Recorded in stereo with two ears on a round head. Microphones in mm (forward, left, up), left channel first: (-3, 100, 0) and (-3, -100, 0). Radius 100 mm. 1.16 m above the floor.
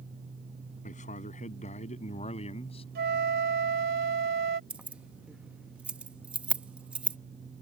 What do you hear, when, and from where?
0.8 s a man speaking: 35° left (ahead or behind); by 2.9 s 25° left (ahead or behind)
3.0 s a flute: 50° right (ahead or behind)
4.7 s keys jangling: 5° right (ahead or behind)